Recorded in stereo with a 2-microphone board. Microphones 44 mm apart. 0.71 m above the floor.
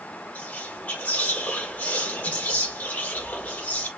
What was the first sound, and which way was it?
Whispering, 40° left (ahead or behind).